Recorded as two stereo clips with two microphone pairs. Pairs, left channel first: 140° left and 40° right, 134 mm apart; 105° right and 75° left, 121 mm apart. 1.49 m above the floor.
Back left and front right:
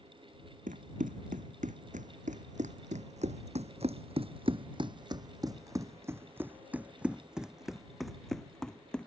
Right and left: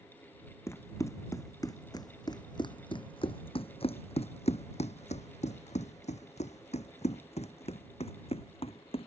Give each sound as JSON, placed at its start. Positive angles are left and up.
{"t": 0.7, "sound": "running footsteps", "azimuth_deg": -40}